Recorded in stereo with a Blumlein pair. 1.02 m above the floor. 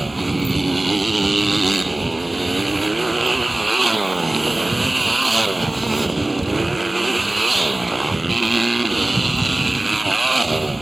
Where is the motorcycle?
5° right.